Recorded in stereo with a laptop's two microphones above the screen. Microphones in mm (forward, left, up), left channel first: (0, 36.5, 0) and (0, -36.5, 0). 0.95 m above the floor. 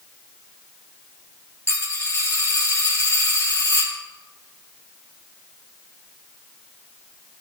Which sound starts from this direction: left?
A dropped coin, at 1.7 s.